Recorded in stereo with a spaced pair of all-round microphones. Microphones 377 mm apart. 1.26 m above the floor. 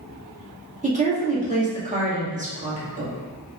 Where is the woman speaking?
20° right (ahead or behind), 1.8 m.